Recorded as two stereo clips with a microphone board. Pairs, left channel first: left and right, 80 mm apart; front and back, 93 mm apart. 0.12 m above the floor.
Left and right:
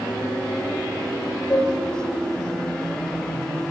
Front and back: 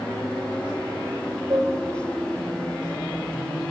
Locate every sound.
1.5 s dishes clattering: 150° left, 1.6 m